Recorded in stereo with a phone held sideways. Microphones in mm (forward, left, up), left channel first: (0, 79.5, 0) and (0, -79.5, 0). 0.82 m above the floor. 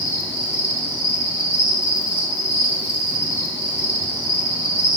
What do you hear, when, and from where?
0.0 s an insect: 10° right (ahead or behind), 2.5 m